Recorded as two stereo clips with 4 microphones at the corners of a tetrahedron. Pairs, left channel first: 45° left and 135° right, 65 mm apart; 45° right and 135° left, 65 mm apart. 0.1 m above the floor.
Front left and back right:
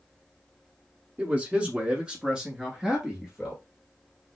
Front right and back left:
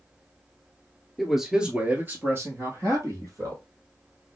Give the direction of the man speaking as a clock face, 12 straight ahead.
4 o'clock.